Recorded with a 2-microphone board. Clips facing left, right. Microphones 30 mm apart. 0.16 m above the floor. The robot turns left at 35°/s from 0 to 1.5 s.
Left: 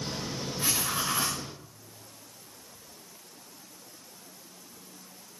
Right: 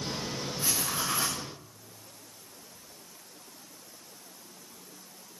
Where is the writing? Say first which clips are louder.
Left 2 dB; 30° left (ahead or behind), 8.5 m; by 1.4 s 5° left (ahead or behind), 8.5 m.